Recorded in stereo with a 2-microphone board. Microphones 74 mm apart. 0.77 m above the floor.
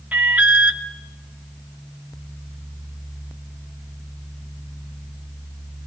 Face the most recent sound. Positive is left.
turn(degrees=-20)  # may be behind; listen again after turning